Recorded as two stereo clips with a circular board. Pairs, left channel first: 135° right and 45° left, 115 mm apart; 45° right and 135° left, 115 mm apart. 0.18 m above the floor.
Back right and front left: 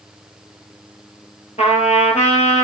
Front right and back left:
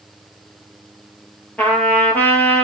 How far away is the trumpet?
About 0.7 m.